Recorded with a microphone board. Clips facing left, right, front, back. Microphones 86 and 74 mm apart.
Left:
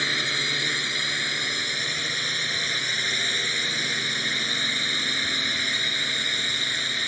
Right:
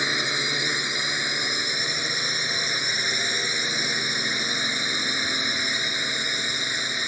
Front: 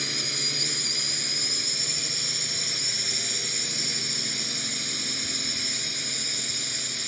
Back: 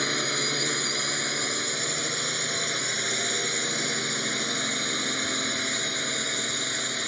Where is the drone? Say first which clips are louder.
Right 2 dB, back 7 dB; 160° right.